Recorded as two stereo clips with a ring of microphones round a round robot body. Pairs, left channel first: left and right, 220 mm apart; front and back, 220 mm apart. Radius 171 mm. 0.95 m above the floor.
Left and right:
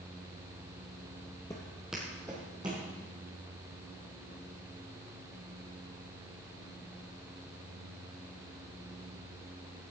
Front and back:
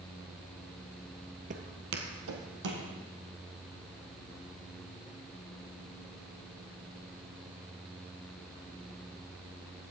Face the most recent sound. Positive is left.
turn(degrees=-165)